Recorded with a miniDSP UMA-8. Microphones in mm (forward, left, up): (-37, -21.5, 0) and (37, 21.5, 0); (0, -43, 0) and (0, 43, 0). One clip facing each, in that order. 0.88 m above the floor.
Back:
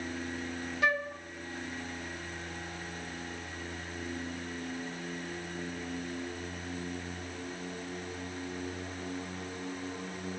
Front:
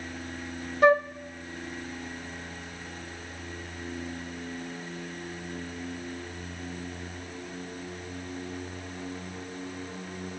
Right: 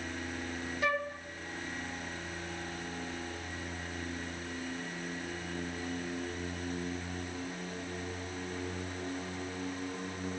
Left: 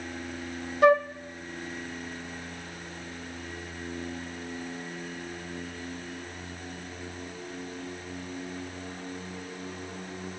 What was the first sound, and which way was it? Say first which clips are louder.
A flute: front 10 dB, left 13 dB; 75° left.